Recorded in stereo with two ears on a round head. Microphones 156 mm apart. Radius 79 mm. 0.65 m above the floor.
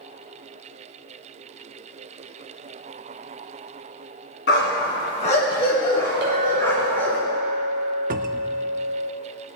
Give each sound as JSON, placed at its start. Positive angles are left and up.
{"t": 4.5, "sound": "a dog barking", "side_deg": 60, "distance_m": 2.0}
{"t": 6.2, "sound": "a clink", "side_deg": -65, "distance_m": 1.6}
{"t": 8.1, "sound": "a cupboard door", "side_deg": -50, "distance_m": 0.5}